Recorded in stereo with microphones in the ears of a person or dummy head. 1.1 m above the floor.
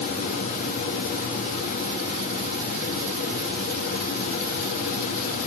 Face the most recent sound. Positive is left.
turn(degrees=45)  # may be behind; listen again after turning